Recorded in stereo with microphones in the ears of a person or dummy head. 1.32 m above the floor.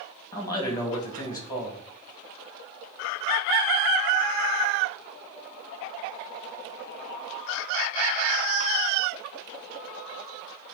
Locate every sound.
0.3 s a man speaking: 20° left (ahead or behind), 2 m